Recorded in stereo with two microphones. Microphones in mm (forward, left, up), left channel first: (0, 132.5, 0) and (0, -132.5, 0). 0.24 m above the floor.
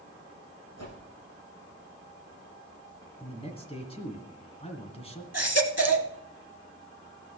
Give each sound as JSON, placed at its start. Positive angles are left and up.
{"t": 0.8, "sound": "a whoosh", "side_deg": 80, "distance_m": 8.5}
{"t": 3.2, "sound": "a man speaking", "side_deg": 25, "distance_m": 2.0}
{"t": 5.3, "sound": "a baby crying", "side_deg": -75, "distance_m": 1.0}